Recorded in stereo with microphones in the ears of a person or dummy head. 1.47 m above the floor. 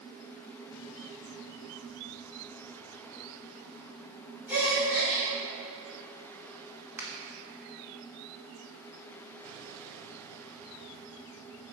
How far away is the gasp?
About 2.5 m.